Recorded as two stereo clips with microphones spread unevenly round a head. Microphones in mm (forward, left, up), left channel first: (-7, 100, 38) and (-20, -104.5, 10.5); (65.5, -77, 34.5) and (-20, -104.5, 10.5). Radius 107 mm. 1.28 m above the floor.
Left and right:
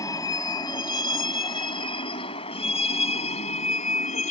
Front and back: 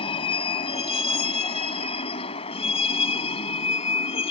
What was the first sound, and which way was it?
A vehicle, 15° left.